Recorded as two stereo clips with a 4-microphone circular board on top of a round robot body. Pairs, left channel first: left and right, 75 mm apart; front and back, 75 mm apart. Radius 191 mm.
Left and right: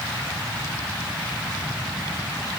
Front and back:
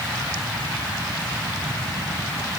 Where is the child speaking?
I don't hear a child speaking.